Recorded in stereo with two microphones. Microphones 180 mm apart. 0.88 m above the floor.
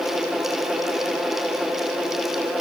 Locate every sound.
Only background noise.